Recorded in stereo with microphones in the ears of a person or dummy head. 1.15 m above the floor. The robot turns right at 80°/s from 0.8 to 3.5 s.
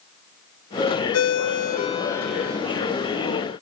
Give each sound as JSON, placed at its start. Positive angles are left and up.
{"t": 1.1, "sound": "a ringtone", "azimuth_deg": 85, "distance_m": 1.1}